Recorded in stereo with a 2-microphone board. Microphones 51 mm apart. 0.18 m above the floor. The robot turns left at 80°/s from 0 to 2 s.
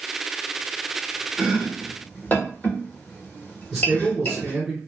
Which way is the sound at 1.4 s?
15° right (ahead or behind).